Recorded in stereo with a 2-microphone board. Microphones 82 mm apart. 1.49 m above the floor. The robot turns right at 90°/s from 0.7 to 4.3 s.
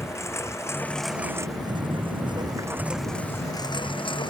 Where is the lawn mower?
30° left (ahead or behind); by 4.3 s 65° left (ahead or behind).